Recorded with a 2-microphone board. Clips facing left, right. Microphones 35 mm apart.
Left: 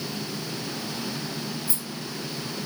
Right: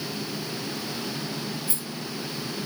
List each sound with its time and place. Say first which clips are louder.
1.7 s a rattle: even; 50° right (ahead or behind), 1.6 m